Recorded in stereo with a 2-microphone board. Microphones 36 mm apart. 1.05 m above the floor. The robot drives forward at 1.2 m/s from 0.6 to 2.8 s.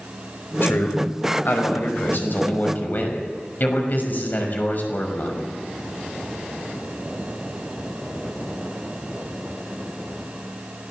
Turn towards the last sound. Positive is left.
turn(degrees=50)  # may be behind; listen again after turning